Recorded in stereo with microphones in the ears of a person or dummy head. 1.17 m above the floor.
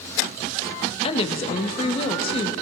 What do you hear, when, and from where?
1.0 s a woman speaking: 35° left (ahead or behind), 0.9 m